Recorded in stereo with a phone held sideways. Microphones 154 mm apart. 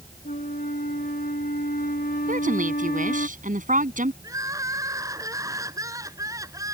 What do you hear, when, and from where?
0.2 s a flute: 70° left (ahead or behind)
2.3 s a woman speaking: 55° right (ahead or behind)
4.2 s crying: 20° right (ahead or behind)